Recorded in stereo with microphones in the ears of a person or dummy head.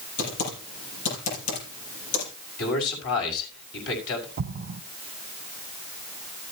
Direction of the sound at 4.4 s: 50° right (ahead or behind).